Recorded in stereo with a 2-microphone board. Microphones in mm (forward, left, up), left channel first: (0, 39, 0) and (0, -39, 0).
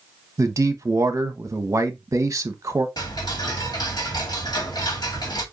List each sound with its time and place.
0.4 s a man speaking: 45° right (ahead or behind), 1.0 m
3.0 s ticking: 55° left (ahead or behind), 1.6 m